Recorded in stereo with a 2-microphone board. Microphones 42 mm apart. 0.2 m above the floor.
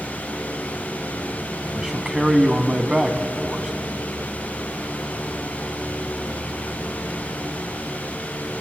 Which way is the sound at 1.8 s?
15° right (ahead or behind).